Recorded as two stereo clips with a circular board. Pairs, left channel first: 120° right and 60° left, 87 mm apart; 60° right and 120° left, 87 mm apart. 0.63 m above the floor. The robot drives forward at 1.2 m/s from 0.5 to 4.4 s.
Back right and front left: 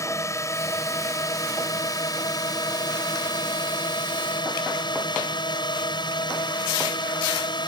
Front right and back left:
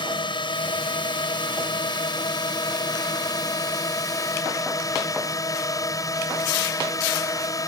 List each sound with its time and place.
0.0 s a drone: 70° right; by 7.7 s 105° right